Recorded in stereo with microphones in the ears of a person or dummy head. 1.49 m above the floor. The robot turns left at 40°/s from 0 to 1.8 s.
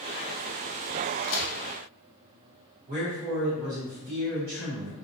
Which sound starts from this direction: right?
A man speaking, at 2.9 s.